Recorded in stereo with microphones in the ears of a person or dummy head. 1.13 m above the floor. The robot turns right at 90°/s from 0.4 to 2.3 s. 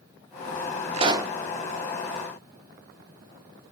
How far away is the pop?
About 0.8 m.